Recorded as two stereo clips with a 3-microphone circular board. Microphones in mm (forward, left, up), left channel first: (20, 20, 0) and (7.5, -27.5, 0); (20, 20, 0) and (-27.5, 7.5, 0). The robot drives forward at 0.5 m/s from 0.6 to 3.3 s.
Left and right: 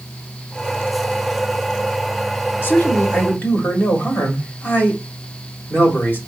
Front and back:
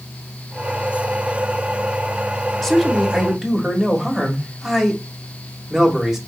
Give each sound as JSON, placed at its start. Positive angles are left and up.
{"t": 2.6, "sound": "a man speaking", "azimuth_deg": 100, "distance_m": 1.5}